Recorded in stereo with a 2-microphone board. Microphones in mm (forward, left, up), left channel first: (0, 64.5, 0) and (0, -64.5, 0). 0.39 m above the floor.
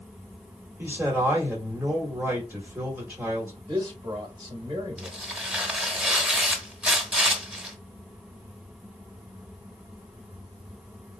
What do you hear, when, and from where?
0.8 s a man speaking: 15° right (ahead or behind), 1.5 m
3.7 s a man speaking: 40° right (ahead or behind), 1.3 m
5.0 s tearing paper: 10° right (ahead or behind), 0.7 m